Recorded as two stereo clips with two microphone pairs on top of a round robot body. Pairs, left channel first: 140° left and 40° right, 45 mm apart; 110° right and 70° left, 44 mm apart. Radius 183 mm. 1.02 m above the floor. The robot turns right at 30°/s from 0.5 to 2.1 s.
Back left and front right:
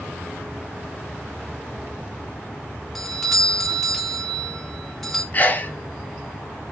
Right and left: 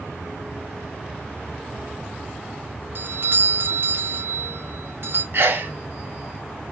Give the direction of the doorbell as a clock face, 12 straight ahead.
10 o'clock.